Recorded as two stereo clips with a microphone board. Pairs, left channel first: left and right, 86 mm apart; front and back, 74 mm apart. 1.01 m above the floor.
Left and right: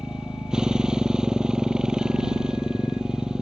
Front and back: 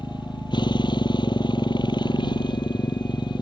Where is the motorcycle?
10° right.